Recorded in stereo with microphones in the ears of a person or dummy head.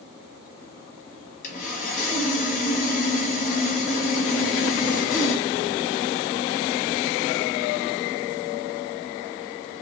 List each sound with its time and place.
1.4 s sawing: 45° left (ahead or behind), 0.9 m